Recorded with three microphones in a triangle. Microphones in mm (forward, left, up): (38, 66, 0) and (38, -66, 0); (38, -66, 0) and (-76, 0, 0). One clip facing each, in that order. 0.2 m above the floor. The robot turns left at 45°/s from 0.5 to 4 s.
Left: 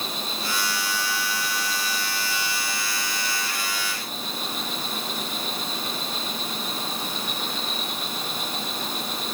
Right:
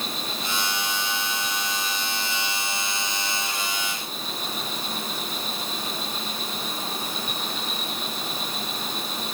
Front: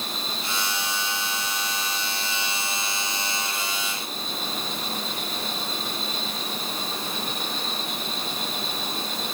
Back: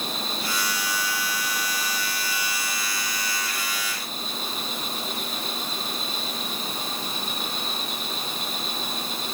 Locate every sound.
0.0 s an insect: 145° left, 9.5 m; by 9.3 s 15° right, 9.5 m